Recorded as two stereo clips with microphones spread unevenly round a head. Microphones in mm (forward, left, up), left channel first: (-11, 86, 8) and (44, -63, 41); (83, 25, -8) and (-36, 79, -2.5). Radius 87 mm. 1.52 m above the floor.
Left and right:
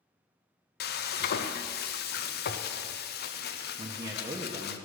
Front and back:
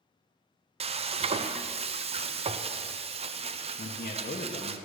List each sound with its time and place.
0.8 s frying: 115° left, 0.7 m
3.8 s a man speaking: 5° right, 1.0 m